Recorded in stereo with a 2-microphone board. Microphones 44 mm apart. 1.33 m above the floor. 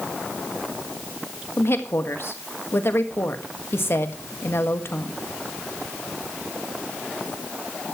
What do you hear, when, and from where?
1.6 s a woman speaking: 65° left (ahead or behind), 1.6 m